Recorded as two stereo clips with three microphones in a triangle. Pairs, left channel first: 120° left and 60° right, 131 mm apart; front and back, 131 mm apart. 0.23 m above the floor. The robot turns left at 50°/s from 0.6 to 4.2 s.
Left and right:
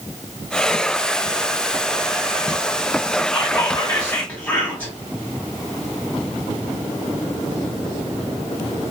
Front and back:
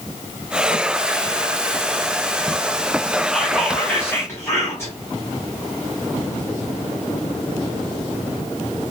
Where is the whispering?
95° left, 1.2 m; by 4.9 s 55° left, 1.2 m.